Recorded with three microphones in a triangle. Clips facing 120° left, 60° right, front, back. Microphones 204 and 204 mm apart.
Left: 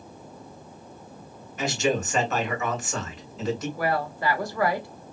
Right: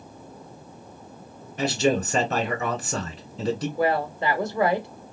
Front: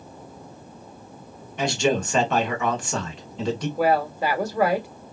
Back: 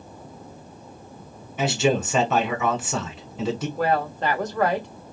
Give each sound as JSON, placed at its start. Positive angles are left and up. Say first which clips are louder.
{"t": 1.6, "sound": "a man speaking", "louder": "right 3 dB, back 1 dB", "azimuth_deg": -100, "distance_m": 1.5}
{"t": 3.8, "sound": "a woman speaking", "louder": "right 3 dB, front 4 dB", "azimuth_deg": -65, "distance_m": 0.9}